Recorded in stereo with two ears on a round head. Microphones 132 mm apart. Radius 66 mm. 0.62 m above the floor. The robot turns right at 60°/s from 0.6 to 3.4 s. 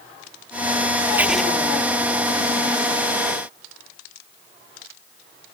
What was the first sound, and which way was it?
Writing, 15° right (ahead or behind).